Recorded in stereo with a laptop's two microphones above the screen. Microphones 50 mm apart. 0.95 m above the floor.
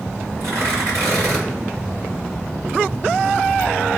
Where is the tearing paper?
80° right, 3 m.